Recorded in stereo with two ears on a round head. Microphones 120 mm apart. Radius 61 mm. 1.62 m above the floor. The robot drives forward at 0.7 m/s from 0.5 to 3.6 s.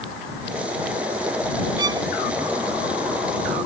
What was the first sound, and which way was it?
A violin, 30° right (ahead or behind).